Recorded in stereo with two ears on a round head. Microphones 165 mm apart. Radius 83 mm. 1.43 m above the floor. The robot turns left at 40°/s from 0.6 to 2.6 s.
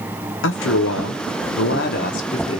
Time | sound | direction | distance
0.4 | a man speaking | 105° left | 0.6 m